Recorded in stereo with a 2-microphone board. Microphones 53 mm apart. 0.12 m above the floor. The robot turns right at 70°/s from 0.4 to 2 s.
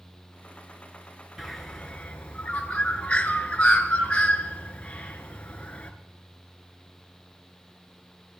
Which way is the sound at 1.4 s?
5° right (ahead or behind).